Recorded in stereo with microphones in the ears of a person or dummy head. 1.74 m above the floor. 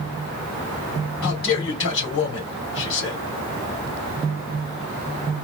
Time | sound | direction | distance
1.2 | a man speaking | 70° left (ahead or behind) | 3 m